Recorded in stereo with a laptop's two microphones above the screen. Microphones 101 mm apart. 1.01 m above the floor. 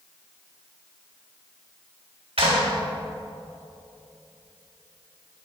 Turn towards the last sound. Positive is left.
turn(degrees=-80)